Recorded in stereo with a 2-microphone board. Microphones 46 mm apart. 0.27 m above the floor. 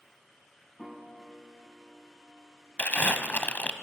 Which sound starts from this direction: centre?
A piano, at 0.8 s.